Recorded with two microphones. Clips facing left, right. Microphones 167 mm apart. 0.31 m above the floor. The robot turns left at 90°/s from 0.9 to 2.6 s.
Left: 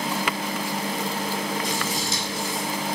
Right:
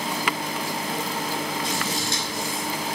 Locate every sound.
1.6 s scissors: 65° right (ahead or behind), 5 m; by 2.7 s 25° right (ahead or behind), 5 m